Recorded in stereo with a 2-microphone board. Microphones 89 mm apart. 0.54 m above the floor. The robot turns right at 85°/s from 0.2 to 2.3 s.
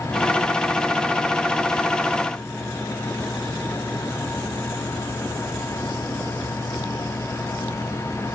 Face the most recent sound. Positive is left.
No sound to turn to.